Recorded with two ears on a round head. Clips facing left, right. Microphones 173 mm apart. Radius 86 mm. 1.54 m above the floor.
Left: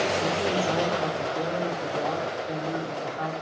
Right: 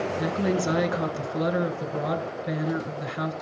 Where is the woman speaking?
75° right (ahead or behind), 1.7 m.